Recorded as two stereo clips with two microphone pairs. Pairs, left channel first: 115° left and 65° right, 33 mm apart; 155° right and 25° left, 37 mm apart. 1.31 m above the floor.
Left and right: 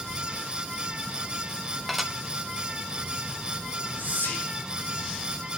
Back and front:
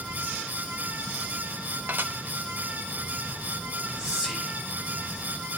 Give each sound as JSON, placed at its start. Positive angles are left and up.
{"t": 1.9, "sound": "dishes clattering", "azimuth_deg": 25, "distance_m": 0.9}
{"t": 4.0, "sound": "whispering", "azimuth_deg": 95, "distance_m": 7.0}